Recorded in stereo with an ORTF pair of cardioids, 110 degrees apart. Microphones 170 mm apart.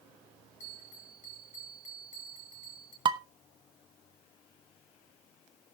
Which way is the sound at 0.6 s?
45° left.